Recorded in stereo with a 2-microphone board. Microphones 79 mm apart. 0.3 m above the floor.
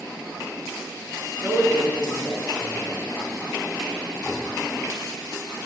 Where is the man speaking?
20° right (ahead or behind), 3.5 m.